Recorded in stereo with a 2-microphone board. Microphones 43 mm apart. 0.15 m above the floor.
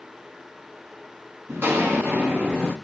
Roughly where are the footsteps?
Right.